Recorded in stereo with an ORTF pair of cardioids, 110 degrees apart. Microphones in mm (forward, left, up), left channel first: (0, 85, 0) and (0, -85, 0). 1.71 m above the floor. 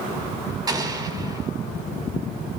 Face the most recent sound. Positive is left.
turn(degrees=-25)